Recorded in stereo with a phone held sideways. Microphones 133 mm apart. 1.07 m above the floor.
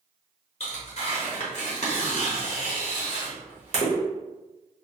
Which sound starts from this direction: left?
Tearing paper, at 0.6 s.